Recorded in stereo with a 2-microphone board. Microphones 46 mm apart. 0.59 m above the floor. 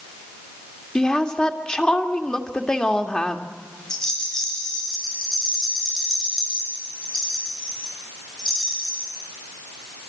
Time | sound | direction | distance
0.9 | a woman speaking | 20° left (ahead or behind) | 1.7 m
3.9 | a rattle | 10° left (ahead or behind) | 5.5 m